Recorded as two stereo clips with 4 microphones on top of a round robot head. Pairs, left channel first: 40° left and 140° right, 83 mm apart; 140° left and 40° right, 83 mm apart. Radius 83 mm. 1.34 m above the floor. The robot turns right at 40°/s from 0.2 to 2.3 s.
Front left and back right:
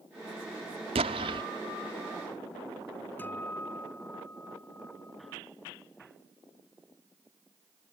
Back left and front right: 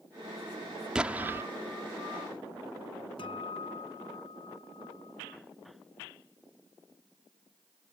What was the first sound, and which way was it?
An explosion, 125° right.